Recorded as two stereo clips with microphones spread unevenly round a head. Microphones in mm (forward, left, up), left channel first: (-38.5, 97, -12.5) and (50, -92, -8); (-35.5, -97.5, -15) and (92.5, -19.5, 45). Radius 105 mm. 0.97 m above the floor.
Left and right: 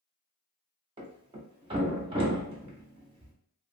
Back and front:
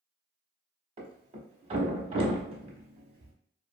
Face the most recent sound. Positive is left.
turn(degrees=0)